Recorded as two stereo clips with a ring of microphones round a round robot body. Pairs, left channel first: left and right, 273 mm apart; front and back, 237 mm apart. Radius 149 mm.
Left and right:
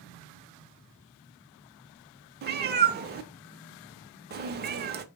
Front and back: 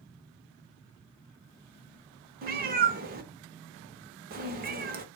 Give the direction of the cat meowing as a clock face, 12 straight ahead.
5 o'clock.